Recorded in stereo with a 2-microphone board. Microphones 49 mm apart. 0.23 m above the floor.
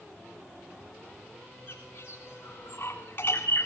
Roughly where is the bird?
Left.